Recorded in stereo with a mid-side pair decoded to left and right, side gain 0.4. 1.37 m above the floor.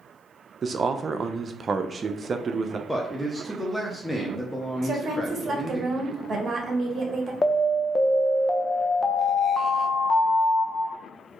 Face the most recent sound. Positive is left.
turn(degrees=25)